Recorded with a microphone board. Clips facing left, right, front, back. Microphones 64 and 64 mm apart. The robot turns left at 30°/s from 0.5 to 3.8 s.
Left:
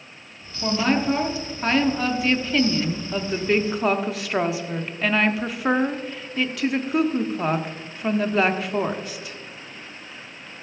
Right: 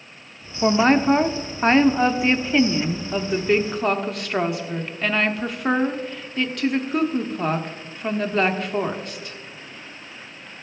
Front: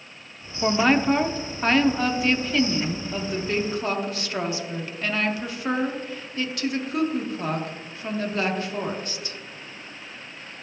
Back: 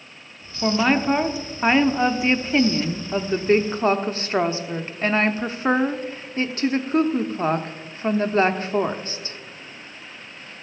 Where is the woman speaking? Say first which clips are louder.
Right 5 dB, even; 90° right, 0.7 m; by 9.4 s 175° left, 0.7 m.